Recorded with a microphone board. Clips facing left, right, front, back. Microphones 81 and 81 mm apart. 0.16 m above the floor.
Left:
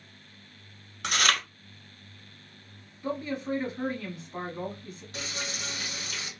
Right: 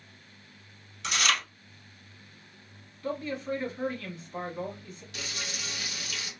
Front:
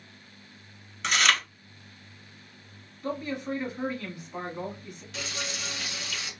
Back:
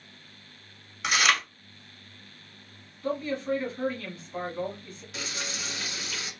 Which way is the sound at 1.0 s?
100° left.